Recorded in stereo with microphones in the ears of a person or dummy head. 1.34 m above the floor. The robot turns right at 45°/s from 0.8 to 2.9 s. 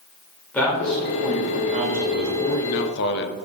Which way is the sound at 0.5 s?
170° left.